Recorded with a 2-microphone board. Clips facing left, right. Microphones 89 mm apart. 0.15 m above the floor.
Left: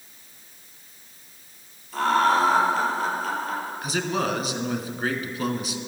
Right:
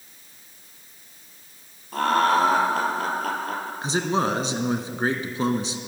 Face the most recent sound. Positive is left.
turn(degrees=-30)  # may be behind; listen again after turning